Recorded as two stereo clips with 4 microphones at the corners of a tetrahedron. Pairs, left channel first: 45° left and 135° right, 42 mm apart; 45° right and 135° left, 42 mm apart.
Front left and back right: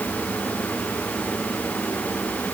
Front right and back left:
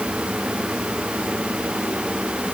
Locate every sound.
Only background noise.